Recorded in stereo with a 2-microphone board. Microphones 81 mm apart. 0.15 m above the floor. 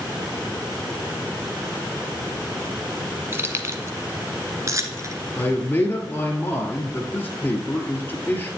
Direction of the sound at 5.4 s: 30° left (ahead or behind).